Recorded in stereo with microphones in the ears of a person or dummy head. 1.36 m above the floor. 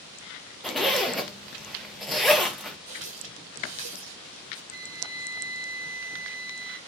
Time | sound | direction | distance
0.6 | a zipper | centre (ahead or behind) | 0.5 m
2.9 | a running tap | 35° right (ahead or behind) | 0.5 m
4.7 | a flute | 30° left (ahead or behind) | 1.2 m